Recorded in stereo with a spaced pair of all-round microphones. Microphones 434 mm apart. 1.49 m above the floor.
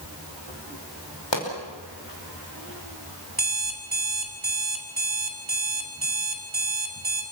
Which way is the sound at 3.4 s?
55° right (ahead or behind).